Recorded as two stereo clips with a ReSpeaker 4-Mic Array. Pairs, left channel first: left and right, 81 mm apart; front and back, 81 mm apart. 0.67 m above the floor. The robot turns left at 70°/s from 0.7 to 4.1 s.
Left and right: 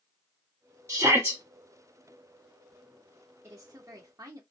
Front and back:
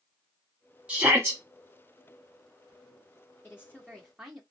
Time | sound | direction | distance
0.9 | a shout | 110° right | 1.4 m
3.4 | a woman speaking | 50° right | 1.1 m